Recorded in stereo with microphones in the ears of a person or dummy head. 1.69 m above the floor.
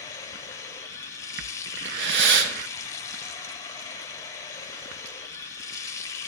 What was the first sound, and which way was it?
Running water, 15° left (ahead or behind).